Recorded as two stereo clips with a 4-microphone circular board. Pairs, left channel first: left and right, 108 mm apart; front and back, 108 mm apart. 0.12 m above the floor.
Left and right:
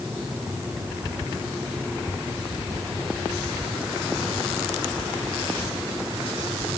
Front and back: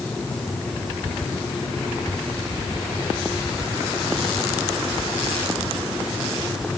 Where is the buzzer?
No buzzer in this recording.